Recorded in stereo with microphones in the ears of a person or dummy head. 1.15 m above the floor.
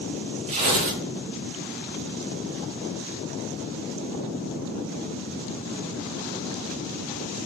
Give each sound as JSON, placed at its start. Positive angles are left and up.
{"t": 0.5, "sound": "tearing paper", "side_deg": -35, "distance_m": 2.5}